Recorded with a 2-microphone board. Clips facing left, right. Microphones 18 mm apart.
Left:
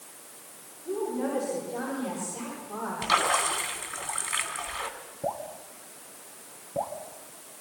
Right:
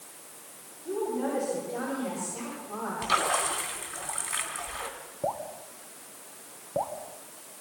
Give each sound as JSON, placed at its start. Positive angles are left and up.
{"t": 0.8, "sound": "a woman speaking", "side_deg": -25, "distance_m": 9.5}
{"t": 3.0, "sound": "a splash", "side_deg": 15, "distance_m": 2.5}
{"t": 5.2, "sound": "dripping", "side_deg": -45, "distance_m": 1.7}